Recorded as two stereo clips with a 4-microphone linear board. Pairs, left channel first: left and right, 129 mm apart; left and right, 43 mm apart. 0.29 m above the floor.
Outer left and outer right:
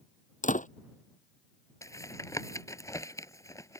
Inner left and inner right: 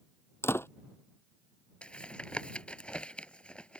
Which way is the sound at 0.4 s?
80° left.